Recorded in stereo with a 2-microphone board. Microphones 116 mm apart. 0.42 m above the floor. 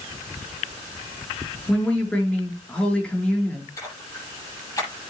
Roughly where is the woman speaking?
Centre.